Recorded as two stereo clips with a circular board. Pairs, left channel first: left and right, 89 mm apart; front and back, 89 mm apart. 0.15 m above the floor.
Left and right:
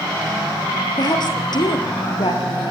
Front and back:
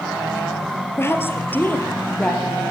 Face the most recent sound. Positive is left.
turn(degrees=80)